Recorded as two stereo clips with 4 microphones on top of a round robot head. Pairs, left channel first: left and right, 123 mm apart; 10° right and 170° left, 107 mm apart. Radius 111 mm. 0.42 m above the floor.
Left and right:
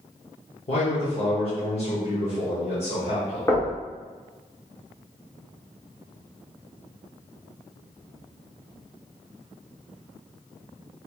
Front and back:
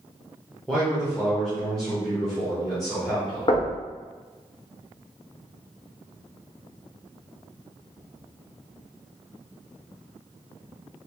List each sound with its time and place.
0.7 s a man speaking: 75° left, 1.3 m
3.5 s knocking: 25° left, 1.0 m